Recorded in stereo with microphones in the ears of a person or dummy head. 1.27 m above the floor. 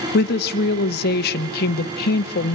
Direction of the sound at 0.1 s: 60° left (ahead or behind).